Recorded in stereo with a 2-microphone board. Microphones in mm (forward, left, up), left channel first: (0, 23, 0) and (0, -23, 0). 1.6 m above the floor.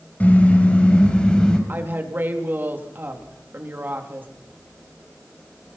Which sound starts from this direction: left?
A car horn, at 0.2 s.